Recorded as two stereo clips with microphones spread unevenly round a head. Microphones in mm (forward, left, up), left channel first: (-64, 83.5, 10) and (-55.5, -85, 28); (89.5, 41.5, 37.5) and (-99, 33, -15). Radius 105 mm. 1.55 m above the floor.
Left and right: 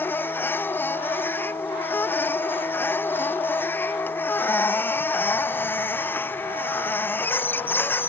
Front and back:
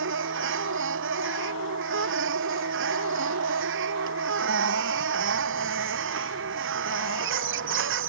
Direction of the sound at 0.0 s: 170° left.